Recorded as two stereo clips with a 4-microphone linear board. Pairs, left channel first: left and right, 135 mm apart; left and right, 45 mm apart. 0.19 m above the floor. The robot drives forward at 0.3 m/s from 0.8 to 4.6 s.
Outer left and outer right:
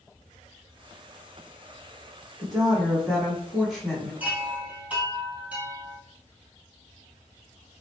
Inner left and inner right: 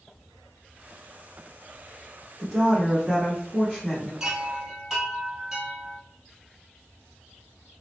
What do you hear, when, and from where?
2.4 s a woman speaking: 5° left (ahead or behind), 1.4 m
4.2 s a chime: 10° right (ahead or behind), 1.5 m